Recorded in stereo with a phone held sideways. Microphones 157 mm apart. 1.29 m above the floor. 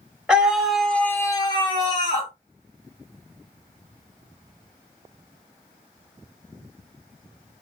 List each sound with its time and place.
0.3 s a scream: 5° right (ahead or behind), 1.2 m; by 2.3 s 25° left (ahead or behind), 1.1 m